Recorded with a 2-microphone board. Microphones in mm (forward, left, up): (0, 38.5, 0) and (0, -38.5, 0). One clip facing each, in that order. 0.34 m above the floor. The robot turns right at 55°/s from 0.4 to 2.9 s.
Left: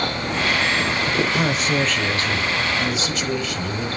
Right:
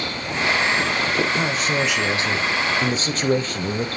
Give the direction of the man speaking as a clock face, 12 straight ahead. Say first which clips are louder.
Left 1 dB; 6 o'clock.